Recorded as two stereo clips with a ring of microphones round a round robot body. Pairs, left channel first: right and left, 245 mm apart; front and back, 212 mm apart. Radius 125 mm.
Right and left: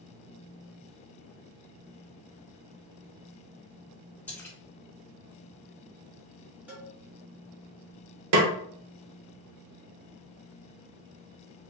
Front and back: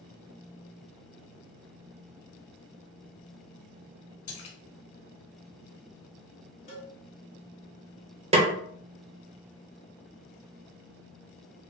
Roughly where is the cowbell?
Ahead.